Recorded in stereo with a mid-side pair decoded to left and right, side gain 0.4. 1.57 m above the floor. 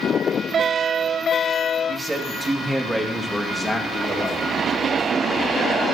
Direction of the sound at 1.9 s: 35° right.